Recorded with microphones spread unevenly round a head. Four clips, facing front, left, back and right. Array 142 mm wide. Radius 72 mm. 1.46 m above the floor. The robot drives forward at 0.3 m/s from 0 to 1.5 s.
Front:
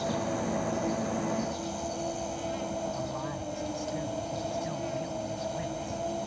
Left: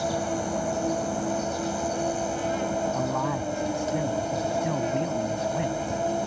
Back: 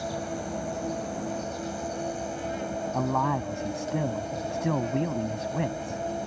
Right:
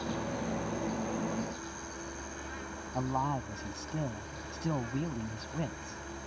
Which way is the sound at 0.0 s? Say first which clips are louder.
Left 8 dB, front 2 dB; 90° left.